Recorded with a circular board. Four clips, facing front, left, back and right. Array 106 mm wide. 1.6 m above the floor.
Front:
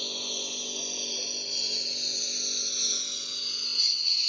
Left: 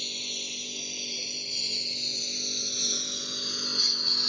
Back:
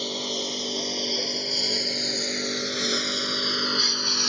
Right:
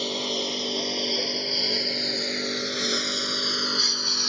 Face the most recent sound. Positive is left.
turn(degrees=-160)